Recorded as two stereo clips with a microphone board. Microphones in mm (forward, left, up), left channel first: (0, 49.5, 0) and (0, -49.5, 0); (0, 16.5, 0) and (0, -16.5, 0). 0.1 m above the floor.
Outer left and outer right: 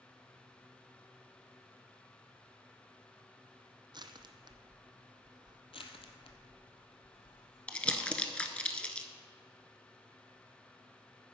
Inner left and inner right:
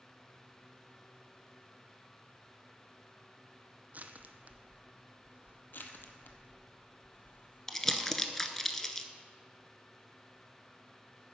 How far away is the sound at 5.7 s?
About 0.9 m.